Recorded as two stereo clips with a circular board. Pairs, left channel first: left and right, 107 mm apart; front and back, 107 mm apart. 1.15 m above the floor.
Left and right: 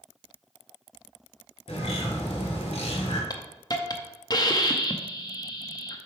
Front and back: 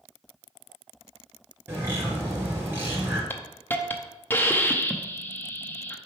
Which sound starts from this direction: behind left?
A bird, at 1.7 s.